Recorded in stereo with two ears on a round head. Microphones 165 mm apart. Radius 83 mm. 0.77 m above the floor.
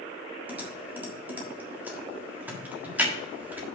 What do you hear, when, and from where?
0.5 s typing on a keyboard: 10° right (ahead or behind), 1.6 m